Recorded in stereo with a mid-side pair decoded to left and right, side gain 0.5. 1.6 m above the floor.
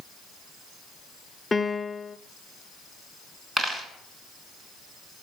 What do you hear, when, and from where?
1.5 s a piano: 20° left, 0.6 m
3.6 s a dropped coin: 25° right, 3 m